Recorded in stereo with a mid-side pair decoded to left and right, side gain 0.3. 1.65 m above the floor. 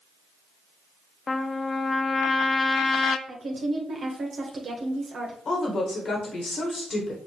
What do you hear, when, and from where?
1.3 s a trumpet: 50° left, 0.6 m
3.3 s a woman speaking: 60° right, 1.1 m
5.5 s a woman speaking: 70° left, 1.5 m